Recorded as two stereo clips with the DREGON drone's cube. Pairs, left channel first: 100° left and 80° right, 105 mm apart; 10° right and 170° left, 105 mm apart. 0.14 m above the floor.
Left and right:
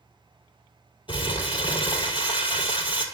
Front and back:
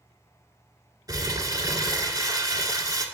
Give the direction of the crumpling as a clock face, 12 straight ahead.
8 o'clock.